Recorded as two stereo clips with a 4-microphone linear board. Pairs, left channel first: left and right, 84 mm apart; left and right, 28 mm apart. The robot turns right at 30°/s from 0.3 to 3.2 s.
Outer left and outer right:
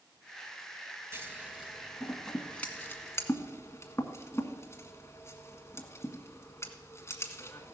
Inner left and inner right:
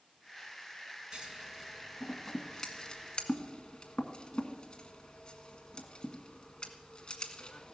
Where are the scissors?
30° right (ahead or behind), 1.6 m; by 7.7 s 35° left (ahead or behind), 1.6 m.